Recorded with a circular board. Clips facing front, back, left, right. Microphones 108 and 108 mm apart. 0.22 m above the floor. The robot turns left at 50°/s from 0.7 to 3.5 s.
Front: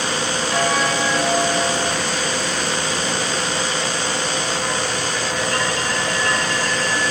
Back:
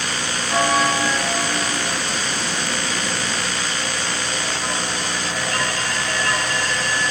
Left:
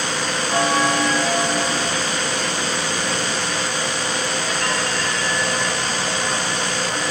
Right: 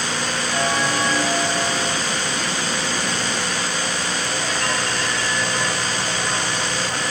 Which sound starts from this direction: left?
A bell, at 0.5 s.